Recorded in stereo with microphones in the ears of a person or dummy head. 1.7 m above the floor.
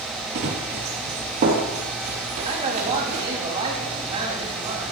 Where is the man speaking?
30° right (ahead or behind), 4 m.